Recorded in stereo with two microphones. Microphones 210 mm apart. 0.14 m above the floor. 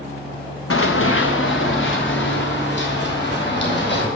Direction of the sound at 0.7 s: 85° left.